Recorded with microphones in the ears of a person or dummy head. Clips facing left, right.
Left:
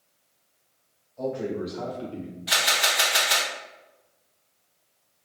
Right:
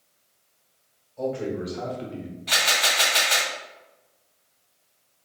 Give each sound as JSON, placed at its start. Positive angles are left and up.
{"t": 1.2, "sound": "a man speaking", "side_deg": -35, "distance_m": 1.7}
{"t": 2.5, "sound": "a camera shutter", "side_deg": 10, "distance_m": 1.2}